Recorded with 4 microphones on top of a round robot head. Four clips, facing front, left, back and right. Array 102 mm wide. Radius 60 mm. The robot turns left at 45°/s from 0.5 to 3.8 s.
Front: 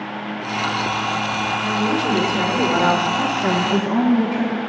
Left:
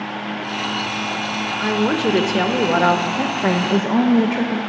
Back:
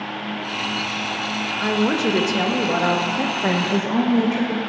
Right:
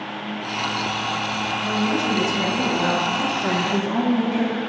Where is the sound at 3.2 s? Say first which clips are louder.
Left 3 dB, front 2 dB; 125° left, 1.1 m; by 4.6 s 95° left, 1.1 m.